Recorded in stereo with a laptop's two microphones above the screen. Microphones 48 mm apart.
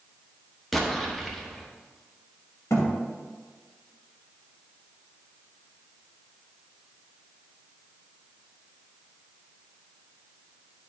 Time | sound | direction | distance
0.7 | an explosion | 5° left (ahead or behind) | 0.8 m
2.7 | a thud | 75° left (ahead or behind) | 2 m